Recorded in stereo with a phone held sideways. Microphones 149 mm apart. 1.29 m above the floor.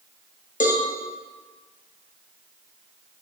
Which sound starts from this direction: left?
A cowbell, at 0.6 s.